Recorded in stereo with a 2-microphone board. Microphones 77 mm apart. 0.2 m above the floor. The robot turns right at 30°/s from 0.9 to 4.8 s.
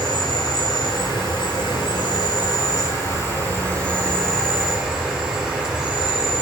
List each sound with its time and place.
0.0 s an insect: 75° left, 3.5 m; by 6.4 s 170° right, 3.5 m